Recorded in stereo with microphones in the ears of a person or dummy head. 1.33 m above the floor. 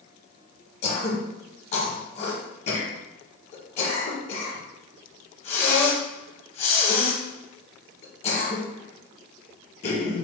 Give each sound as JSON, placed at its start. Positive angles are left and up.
{"t": 0.8, "sound": "throat clearing", "side_deg": 35, "distance_m": 1.0}